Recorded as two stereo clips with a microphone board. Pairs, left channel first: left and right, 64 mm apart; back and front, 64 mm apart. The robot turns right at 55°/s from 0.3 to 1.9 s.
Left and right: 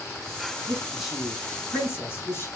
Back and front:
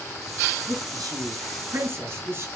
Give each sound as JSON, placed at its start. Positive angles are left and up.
{"t": 0.7, "sound": "a man speaking", "azimuth_deg": -25, "distance_m": 3.5}